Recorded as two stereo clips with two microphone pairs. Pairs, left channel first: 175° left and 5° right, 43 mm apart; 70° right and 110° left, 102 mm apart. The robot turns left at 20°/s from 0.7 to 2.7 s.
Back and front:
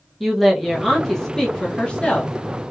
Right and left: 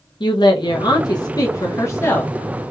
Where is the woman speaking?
100° right, 0.5 m; by 2.3 s 130° right, 0.5 m.